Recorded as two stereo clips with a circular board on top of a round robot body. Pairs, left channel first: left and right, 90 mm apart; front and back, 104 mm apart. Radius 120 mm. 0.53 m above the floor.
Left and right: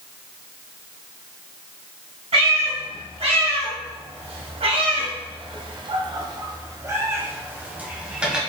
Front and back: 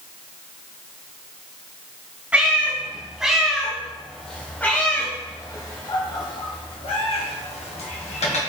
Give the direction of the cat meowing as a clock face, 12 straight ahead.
3 o'clock.